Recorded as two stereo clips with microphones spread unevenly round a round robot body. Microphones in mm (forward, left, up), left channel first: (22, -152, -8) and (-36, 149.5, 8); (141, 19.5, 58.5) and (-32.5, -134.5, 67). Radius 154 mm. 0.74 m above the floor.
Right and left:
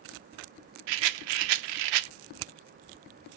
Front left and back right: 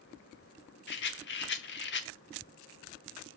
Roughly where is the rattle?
Left.